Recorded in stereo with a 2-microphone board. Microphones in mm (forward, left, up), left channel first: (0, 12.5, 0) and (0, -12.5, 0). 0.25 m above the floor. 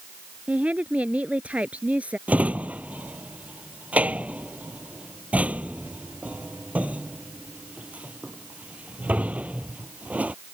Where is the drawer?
80° right.